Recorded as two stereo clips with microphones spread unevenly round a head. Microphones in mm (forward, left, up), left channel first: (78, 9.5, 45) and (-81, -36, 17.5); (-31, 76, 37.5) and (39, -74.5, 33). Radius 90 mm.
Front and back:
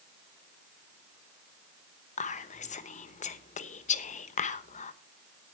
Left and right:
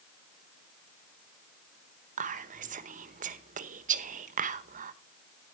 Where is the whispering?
30° right, 0.9 m.